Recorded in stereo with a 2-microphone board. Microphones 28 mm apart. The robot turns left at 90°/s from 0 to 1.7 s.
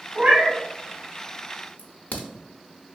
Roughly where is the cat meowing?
Ahead right.